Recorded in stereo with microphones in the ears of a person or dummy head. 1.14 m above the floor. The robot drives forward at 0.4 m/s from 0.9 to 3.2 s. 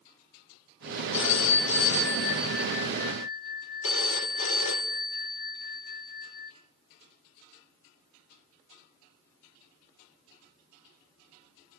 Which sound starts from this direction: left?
A phone ringing, at 1.1 s.